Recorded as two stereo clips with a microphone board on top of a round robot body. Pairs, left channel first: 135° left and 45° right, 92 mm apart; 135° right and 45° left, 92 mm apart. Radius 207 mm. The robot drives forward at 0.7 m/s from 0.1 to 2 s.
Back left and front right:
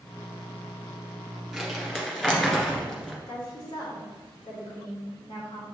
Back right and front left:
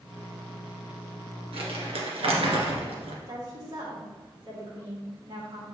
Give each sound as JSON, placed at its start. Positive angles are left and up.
{"t": 1.5, "sound": "crumpling", "azimuth_deg": 45, "distance_m": 2.0}
{"t": 3.3, "sound": "a woman speaking", "azimuth_deg": 95, "distance_m": 3.0}